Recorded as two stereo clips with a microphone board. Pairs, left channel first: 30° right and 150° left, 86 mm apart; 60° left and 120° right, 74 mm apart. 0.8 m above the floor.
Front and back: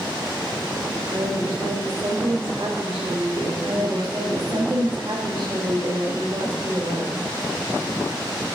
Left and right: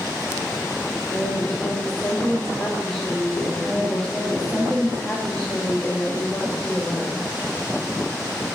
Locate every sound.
1.1 s a woman speaking: 140° left, 1.8 m
3.6 s a woman speaking: 130° left, 1.3 m